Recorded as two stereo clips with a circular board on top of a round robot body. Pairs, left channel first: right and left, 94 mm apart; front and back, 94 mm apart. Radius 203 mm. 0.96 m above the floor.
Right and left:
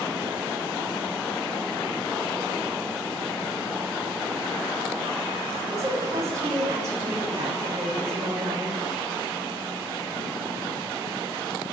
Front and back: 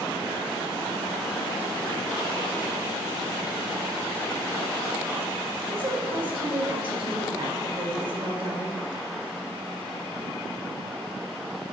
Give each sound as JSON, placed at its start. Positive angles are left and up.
{"t": 5.7, "sound": "a woman speaking", "azimuth_deg": 145, "distance_m": 2.5}